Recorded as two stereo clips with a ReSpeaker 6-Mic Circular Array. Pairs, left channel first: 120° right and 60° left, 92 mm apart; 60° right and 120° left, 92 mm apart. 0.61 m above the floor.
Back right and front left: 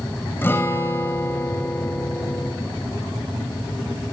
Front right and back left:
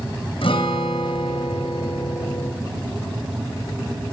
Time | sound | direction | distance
0.4 | a guitar | 55° right | 3.5 m